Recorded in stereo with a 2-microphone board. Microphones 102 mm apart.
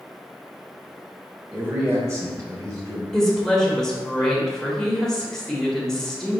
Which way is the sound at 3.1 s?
5° left (ahead or behind).